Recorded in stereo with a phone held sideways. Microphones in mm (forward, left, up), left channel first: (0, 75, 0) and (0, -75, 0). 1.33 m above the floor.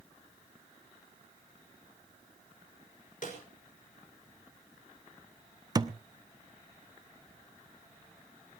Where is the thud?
25° right (ahead or behind), 0.7 m.